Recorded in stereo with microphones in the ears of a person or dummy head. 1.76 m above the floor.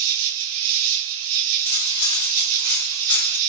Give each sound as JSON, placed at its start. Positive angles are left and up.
{"t": 0.0, "sound": "an insect", "side_deg": -75, "distance_m": 0.7}
{"t": 1.6, "sound": "cutlery clinking", "side_deg": 10, "distance_m": 3.0}